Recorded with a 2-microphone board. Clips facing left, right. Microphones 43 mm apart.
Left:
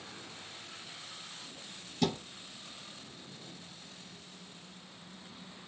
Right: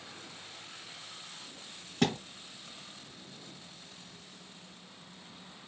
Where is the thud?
65° right (ahead or behind), 2.5 m.